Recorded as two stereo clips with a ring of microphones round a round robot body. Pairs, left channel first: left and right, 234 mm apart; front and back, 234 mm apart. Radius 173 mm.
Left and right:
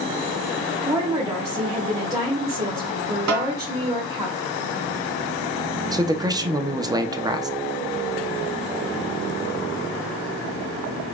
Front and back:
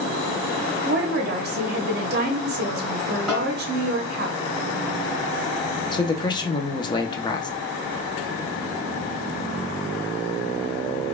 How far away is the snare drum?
About 0.8 m.